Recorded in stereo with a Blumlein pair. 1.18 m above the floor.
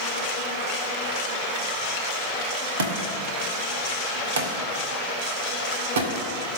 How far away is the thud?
About 1.7 m.